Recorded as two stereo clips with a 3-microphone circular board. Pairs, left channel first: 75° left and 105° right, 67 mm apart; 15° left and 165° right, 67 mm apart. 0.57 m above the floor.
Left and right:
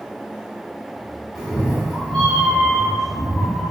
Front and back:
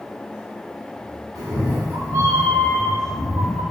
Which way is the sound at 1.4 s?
165° left.